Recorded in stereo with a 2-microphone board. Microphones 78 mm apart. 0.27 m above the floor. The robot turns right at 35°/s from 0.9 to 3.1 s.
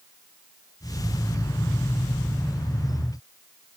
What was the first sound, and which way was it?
Only background noise.